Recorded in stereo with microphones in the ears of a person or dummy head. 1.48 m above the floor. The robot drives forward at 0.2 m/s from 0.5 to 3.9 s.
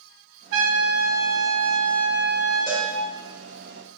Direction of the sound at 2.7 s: Centre (ahead or behind).